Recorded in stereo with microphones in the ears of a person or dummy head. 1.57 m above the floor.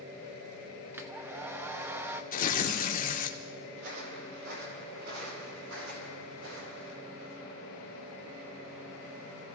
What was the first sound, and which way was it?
A hair dryer, 15° right (ahead or behind).